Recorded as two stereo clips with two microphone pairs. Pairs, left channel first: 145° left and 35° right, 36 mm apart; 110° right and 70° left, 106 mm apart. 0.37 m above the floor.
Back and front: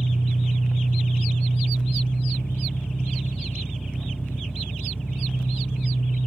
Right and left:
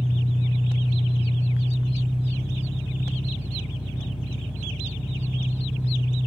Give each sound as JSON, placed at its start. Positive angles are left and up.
{"t": 0.0, "sound": "an engine running", "azimuth_deg": 150, "distance_m": 5.0}